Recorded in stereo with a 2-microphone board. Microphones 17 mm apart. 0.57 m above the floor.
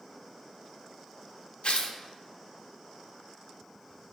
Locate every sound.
1.6 s tearing paper: 70° left (ahead or behind), 0.6 m